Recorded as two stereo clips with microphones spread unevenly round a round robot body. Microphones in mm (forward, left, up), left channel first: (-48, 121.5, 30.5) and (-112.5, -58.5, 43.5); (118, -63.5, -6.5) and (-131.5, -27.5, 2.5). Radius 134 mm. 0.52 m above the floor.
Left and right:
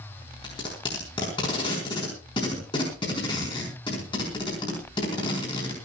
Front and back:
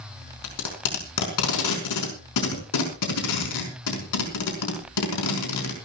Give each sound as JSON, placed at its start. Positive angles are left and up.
{"t": 0.4, "sound": "tape being pulled", "azimuth_deg": 0, "distance_m": 5.0}